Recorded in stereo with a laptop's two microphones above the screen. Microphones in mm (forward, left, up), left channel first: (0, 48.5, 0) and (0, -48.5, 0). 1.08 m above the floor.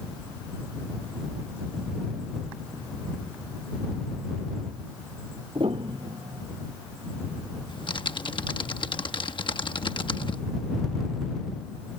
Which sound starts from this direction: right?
A piano, at 5.5 s.